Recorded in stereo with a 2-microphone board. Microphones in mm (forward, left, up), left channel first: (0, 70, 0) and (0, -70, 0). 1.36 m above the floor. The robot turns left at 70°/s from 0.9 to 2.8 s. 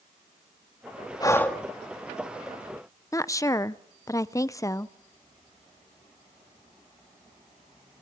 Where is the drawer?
No drawer in this recording.